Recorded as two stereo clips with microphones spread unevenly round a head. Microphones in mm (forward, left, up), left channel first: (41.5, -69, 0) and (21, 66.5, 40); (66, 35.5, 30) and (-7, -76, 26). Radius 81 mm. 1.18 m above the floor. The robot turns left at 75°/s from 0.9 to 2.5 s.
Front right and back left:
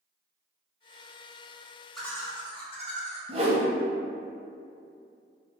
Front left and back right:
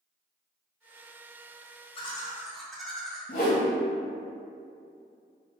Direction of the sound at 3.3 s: 80° left.